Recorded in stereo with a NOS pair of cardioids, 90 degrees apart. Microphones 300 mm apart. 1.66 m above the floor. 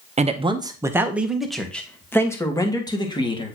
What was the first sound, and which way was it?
A man speaking, 25° right.